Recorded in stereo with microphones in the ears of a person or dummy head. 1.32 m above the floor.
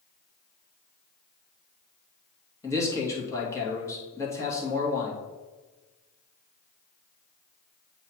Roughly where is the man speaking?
Centre.